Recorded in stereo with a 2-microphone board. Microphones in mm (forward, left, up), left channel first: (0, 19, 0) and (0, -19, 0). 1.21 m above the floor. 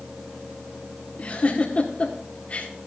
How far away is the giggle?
About 1.8 m.